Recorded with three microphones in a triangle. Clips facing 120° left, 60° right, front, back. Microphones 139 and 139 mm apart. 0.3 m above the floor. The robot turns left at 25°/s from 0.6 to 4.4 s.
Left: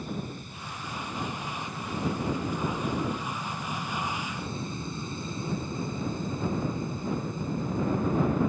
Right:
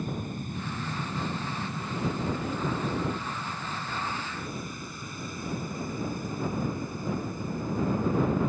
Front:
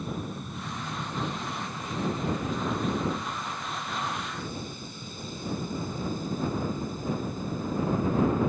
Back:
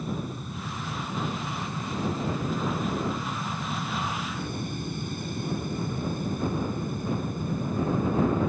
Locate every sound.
0.0 s an aircraft: 90° right; by 8.5 s 175° right